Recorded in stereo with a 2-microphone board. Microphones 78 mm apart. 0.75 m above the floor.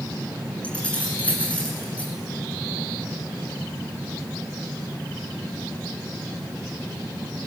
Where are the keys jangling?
20° left (ahead or behind), 6 m.